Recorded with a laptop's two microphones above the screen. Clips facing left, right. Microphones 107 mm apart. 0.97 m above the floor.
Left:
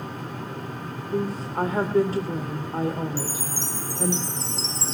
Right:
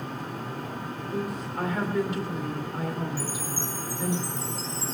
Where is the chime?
75° left (ahead or behind), 0.8 m.